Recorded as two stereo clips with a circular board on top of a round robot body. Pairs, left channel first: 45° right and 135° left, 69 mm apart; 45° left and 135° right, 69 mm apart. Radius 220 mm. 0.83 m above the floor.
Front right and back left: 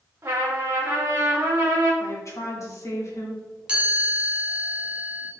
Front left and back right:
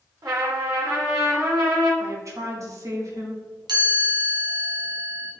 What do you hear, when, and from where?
0.2 s a trumpet: 165° right, 3 m
2.0 s a woman speaking: 90° right, 2 m
3.7 s a chime: 150° right, 2 m